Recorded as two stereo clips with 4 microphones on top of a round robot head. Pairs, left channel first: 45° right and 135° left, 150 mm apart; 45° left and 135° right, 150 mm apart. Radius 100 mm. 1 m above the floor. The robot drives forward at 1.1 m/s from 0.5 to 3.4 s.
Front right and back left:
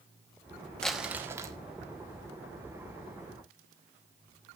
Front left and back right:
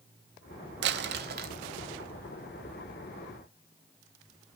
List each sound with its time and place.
0.8 s crumpling: 130° right, 0.7 m; by 1.6 s 160° right, 1.4 m